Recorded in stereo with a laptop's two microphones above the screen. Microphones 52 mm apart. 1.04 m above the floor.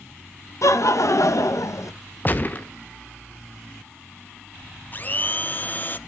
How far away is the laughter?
About 0.6 m.